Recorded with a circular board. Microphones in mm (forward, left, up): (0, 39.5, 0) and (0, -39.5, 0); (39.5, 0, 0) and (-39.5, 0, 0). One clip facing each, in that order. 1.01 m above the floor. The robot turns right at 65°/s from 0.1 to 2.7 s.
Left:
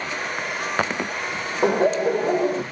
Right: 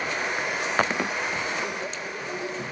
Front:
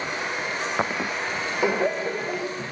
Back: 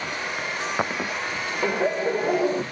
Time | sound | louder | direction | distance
1.6 | laughter | left 13 dB, back 1 dB | 75° left | ?